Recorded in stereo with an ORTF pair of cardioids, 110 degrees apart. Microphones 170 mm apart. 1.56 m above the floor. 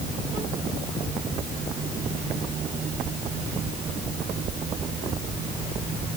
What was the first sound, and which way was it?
Only background noise.